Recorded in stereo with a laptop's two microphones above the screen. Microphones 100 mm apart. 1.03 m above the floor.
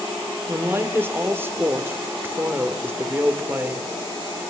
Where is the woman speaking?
20° right (ahead or behind), 3.5 m.